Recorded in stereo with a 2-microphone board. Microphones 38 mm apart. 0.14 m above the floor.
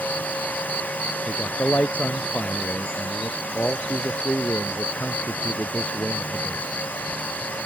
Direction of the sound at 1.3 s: 45° left (ahead or behind).